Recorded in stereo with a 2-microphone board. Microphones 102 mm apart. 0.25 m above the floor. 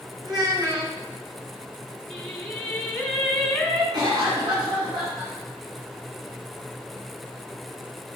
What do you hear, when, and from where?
0.2 s a child speaking: 40° right (ahead or behind), 2.5 m
2.1 s singing: 10° left (ahead or behind), 1.7 m
3.9 s a cough: 45° right (ahead or behind), 3 m